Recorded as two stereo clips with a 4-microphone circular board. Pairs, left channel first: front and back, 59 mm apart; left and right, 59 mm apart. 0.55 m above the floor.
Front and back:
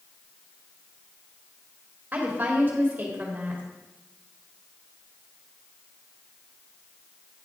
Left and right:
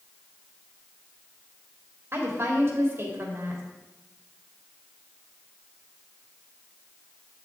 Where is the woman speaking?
125° right, 2.5 m.